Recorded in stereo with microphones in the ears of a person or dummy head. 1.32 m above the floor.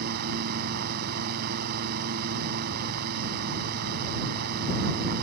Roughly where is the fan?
Right.